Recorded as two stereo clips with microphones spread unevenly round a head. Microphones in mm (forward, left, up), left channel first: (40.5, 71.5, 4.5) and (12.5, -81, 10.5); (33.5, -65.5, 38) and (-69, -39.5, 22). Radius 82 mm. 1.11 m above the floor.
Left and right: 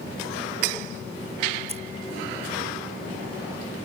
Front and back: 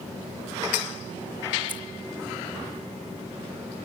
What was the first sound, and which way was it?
Keys jangling, 50° right.